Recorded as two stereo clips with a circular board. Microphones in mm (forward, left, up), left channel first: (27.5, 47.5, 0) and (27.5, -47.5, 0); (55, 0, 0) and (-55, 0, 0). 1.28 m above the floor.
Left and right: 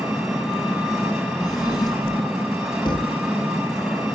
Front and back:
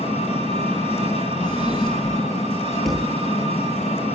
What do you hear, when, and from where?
0.0 s an engine running: 5° right, 6.5 m
1.4 s a drawer: 45° left, 3.5 m
2.9 s a thud: 90° left, 0.8 m